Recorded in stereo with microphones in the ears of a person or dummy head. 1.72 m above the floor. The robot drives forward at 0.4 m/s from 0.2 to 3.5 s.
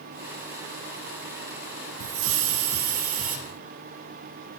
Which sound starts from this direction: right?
A hiss, at 2.0 s.